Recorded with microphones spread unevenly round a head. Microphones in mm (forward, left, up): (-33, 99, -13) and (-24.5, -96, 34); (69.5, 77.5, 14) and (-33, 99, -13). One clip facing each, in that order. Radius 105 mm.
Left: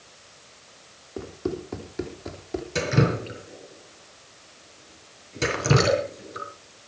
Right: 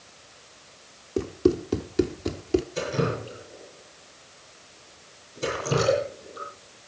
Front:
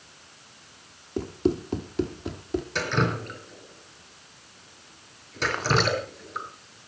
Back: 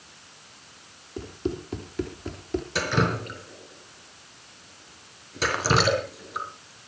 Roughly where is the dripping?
Left.